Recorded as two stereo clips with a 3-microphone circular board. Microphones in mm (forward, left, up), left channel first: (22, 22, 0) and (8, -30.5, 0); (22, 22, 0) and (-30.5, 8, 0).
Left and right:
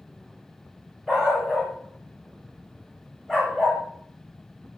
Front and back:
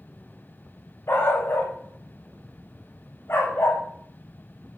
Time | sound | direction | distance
1.1 | a dog barking | 15° right | 5 m